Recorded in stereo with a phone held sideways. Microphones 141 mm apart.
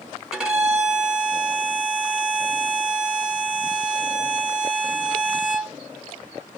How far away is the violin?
About 1.2 m.